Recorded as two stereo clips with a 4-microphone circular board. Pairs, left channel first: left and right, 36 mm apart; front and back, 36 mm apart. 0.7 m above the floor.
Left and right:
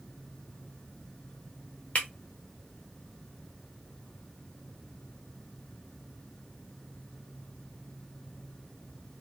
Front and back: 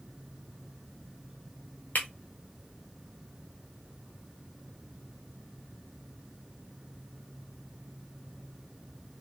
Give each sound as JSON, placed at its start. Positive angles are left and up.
{"t": 1.9, "sound": "breaking glass", "azimuth_deg": 35, "distance_m": 1.0}